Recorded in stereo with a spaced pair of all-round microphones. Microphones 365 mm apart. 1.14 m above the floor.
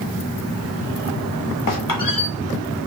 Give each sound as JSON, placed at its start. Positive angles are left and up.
{"t": 1.7, "sound": "a squeak", "side_deg": 60, "distance_m": 0.9}